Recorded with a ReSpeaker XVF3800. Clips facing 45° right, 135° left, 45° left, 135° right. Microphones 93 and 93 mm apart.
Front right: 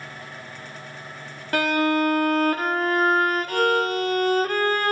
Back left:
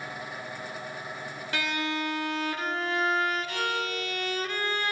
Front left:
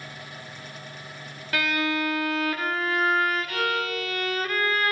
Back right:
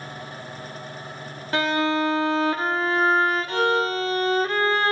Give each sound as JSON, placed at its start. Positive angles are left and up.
{"t": 1.5, "sound": "a violin", "azimuth_deg": -80, "distance_m": 0.5}